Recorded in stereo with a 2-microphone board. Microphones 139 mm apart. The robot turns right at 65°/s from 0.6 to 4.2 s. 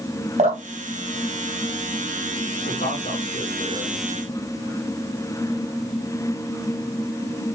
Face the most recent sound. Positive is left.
turn(degrees=165)